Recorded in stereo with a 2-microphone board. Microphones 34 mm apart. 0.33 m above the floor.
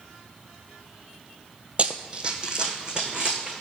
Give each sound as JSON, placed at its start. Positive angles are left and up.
{"t": 1.8, "sound": "running footsteps", "side_deg": -35, "distance_m": 0.6}